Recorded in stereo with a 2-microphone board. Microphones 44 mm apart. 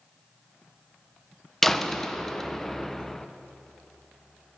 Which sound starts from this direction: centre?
A door slam, at 1.6 s.